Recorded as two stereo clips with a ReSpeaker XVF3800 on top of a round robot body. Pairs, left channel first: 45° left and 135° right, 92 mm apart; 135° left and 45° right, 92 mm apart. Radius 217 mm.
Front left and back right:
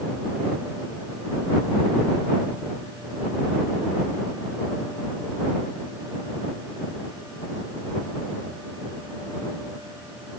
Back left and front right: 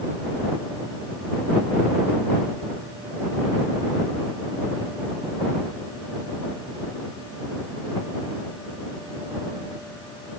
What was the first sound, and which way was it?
Only background noise.